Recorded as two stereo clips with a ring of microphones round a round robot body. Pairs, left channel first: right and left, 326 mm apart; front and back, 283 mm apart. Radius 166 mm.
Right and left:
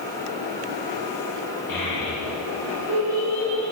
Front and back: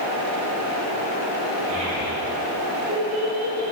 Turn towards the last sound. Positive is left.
turn(degrees=-95)